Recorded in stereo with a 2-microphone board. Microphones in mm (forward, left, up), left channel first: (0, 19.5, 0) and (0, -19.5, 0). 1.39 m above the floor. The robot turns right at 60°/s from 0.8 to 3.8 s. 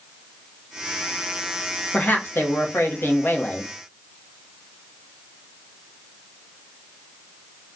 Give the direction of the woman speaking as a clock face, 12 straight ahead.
11 o'clock.